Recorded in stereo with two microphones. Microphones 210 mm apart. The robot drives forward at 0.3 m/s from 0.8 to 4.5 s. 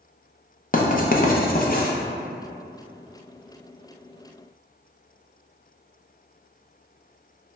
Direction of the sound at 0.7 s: 45° left (ahead or behind).